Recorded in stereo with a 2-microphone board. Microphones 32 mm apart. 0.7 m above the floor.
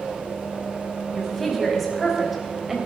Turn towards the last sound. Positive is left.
turn(degrees=-10)  # may be behind; listen again after turning